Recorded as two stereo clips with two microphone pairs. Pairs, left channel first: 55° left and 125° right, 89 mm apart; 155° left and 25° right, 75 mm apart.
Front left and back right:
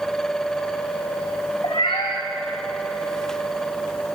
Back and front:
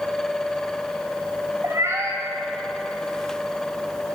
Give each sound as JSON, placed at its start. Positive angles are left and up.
{"t": 1.6, "sound": "a cat meowing", "azimuth_deg": 35, "distance_m": 2.5}